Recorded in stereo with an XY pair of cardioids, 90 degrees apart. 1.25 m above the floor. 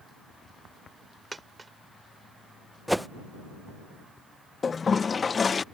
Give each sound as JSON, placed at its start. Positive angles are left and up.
{"t": 1.3, "sound": "a dropped coin", "azimuth_deg": -25}
{"t": 2.9, "sound": "a whoosh", "azimuth_deg": -5}
{"t": 4.6, "sound": "a toilet flushing", "azimuth_deg": 40}